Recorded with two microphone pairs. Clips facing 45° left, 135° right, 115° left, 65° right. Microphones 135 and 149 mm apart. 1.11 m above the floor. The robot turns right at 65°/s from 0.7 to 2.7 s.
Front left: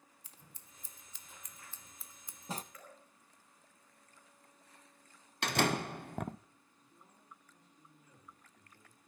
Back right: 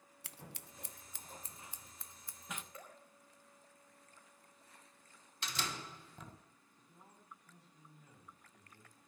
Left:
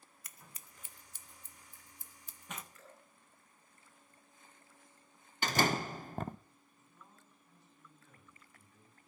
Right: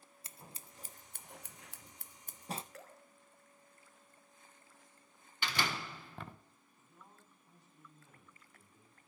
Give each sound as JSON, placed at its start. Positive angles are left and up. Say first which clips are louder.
{"t": 0.2, "sound": "scissors", "louder": "back right 11 dB, right 5 dB", "azimuth_deg": -125, "distance_m": 0.6}
{"t": 2.7, "sound": "dripping", "louder": "back right 1 dB, right 4 dB", "azimuth_deg": -70, "distance_m": 5.0}
{"t": 5.4, "sound": "a door slam", "louder": "front left 12 dB, left 7 dB", "azimuth_deg": 70, "distance_m": 0.5}
{"t": 6.8, "sound": "a man speaking", "louder": "back right 2 dB, right 1 dB", "azimuth_deg": -135, "distance_m": 9.0}